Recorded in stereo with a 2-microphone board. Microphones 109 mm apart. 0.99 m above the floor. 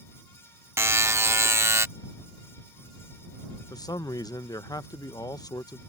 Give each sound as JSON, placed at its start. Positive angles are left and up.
{"t": 0.8, "sound": "a buzzer", "side_deg": -25}
{"t": 3.7, "sound": "a man speaking", "side_deg": 35}